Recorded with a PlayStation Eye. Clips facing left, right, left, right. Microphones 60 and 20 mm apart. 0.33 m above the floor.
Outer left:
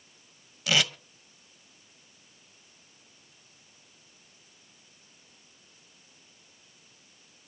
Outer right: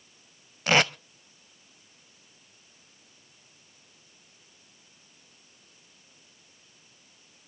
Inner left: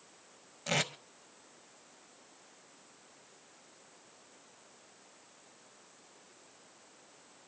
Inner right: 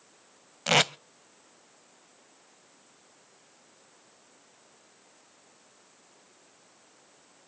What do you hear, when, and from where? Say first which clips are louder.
0.7 s tape being pulled: outer right 5 dB, inner right 10 dB; 45° right (ahead or behind), 0.6 m